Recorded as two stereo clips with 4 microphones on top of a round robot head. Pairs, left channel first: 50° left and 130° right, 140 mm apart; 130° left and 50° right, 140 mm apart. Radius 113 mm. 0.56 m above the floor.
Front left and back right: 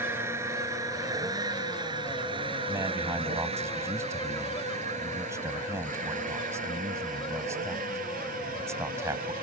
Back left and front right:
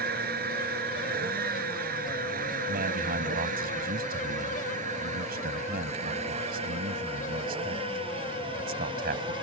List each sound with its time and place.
0.0 s a vehicle: 55° right; by 9.4 s 110° right
2.7 s a man speaking: 55° right